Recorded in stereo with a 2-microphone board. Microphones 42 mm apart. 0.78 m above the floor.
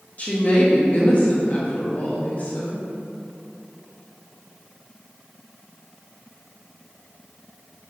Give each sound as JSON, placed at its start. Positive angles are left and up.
{"t": 0.2, "sound": "a woman speaking", "side_deg": 35, "distance_m": 0.8}